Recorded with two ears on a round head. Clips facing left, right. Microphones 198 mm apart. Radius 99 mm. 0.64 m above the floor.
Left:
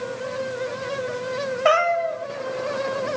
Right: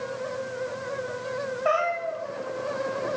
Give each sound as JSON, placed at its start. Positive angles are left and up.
{"t": 1.6, "sound": "a cat meowing", "side_deg": 85, "distance_m": 1.5}